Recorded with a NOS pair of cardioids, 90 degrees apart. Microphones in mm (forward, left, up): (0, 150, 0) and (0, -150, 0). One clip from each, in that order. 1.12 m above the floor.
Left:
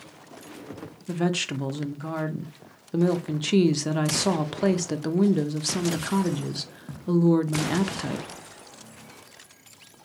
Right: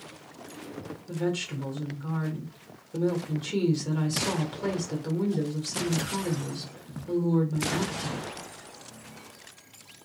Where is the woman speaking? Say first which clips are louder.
Left 4 dB; 50° left, 0.8 m.